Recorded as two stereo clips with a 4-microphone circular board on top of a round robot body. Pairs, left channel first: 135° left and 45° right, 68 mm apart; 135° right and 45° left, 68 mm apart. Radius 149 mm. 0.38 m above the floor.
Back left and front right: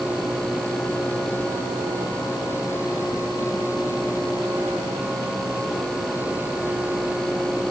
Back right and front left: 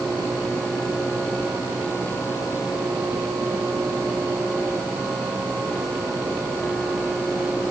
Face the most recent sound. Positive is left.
No sound to turn to.